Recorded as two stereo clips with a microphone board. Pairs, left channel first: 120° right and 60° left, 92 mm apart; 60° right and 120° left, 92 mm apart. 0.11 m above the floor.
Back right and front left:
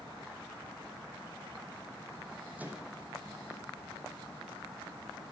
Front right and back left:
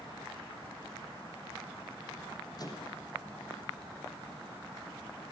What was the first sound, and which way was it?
A microwave, 15° right.